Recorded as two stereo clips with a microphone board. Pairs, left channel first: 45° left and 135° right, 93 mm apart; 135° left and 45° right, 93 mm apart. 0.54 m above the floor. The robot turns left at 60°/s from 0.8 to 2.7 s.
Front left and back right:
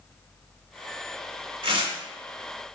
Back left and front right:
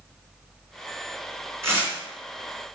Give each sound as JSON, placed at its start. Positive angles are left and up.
{"t": 1.6, "sound": "tearing paper", "azimuth_deg": -105, "distance_m": 2.5}